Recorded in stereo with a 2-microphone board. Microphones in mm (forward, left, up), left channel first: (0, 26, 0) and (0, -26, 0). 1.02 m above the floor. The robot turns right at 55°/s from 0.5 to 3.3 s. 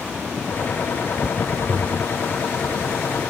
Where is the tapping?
50° right (ahead or behind); by 2.1 s 30° right (ahead or behind).